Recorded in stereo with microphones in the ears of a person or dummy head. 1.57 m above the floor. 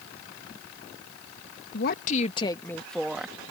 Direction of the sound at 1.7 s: 50° left (ahead or behind).